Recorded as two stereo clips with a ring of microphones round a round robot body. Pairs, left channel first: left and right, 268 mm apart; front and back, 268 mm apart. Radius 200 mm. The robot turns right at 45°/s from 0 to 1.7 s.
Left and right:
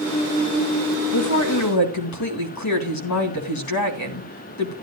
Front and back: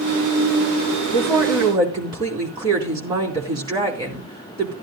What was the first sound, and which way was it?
A woman speaking, 75° left.